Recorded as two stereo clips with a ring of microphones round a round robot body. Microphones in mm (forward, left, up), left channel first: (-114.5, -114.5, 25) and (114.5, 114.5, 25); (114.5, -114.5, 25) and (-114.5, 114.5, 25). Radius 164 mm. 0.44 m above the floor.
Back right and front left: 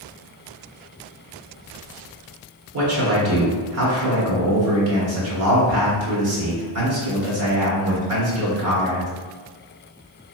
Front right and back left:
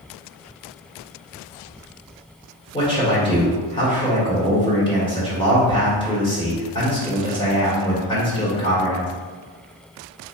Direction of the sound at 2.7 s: 25° left.